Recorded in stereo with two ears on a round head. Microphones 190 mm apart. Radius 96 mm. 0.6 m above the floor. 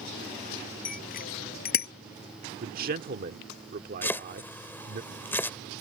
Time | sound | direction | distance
0.8 | a bicycle bell | 40° left (ahead or behind) | ?
2.6 | a man speaking | 45° right (ahead or behind) | ?
4.0 | chopping | 10° left (ahead or behind) | ?